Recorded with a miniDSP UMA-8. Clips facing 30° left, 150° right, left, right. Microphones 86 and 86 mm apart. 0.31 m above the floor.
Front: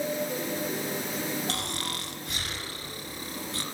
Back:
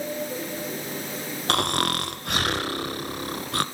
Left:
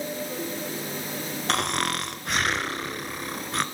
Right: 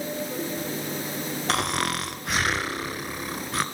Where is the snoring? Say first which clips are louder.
Back 10 dB, even; straight behind, 0.8 m.